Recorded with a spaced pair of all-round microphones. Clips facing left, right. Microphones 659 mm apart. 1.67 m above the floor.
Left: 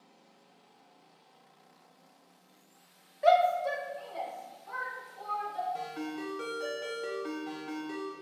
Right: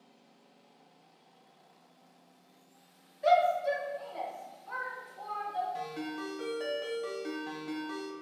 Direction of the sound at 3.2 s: 80° left.